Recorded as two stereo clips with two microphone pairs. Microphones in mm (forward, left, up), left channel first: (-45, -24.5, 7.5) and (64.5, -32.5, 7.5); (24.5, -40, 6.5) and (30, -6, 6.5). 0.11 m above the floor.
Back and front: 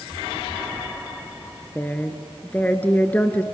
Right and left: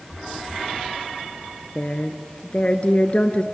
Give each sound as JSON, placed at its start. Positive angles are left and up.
{"t": 1.8, "sound": "a woman speaking", "azimuth_deg": -115, "distance_m": 1.4}